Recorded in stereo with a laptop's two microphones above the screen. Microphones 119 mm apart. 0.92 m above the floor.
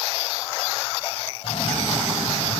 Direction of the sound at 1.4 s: 55° left (ahead or behind).